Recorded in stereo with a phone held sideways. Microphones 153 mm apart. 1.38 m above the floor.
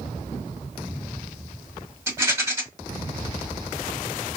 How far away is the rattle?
About 1.3 m.